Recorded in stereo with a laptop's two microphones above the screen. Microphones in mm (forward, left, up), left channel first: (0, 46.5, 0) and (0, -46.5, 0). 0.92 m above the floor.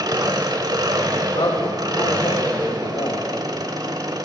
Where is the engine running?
45° right (ahead or behind), 0.9 m.